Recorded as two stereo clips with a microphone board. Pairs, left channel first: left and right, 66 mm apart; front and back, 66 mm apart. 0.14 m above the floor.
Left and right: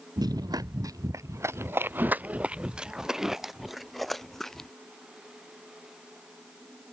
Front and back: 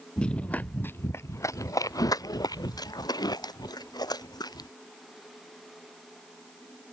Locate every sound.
0.2 s running footsteps: 80° right; by 4.7 s 5° left